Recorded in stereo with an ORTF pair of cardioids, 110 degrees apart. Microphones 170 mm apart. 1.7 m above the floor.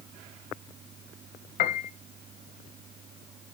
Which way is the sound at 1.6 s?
65° left.